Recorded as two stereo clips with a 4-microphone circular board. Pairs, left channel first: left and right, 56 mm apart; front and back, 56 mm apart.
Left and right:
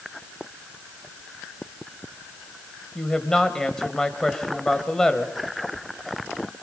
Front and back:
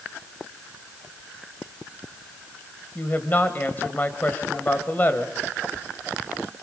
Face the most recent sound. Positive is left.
turn(degrees=15)